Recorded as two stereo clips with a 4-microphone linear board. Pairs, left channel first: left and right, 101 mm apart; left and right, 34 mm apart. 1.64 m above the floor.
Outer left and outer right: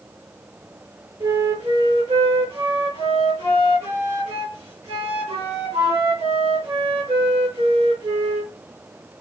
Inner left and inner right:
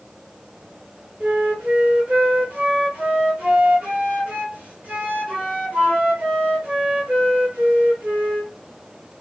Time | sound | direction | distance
1.2 | a flute | 85° right | 2 m